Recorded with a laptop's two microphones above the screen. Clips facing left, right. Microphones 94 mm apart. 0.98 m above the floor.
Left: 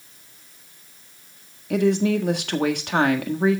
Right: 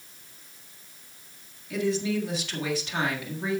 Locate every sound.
1.7 s a woman speaking: 60° left (ahead or behind), 1.5 m